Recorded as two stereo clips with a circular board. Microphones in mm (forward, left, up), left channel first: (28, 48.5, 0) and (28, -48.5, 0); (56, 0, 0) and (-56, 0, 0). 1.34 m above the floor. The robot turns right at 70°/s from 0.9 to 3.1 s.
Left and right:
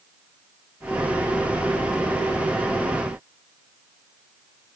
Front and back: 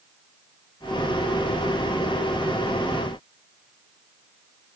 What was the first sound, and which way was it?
Only background noise.